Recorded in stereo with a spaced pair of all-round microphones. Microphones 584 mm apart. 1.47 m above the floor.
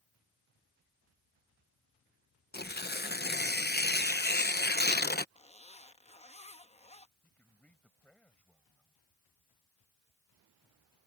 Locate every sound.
2.5 s tearing paper: 15° left (ahead or behind)
5.3 s a zipper: 10° left (ahead or behind)
7.2 s a man speaking: centre (ahead or behind)